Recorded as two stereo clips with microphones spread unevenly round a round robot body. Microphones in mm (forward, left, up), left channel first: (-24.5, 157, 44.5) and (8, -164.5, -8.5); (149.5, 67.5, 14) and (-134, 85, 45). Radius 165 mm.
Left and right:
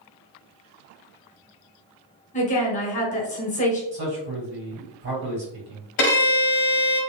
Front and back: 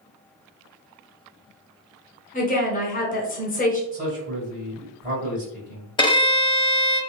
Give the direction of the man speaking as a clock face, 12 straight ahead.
4 o'clock.